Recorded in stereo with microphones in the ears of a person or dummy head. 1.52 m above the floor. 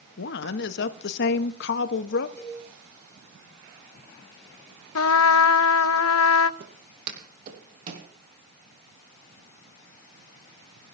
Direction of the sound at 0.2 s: 55° left (ahead or behind).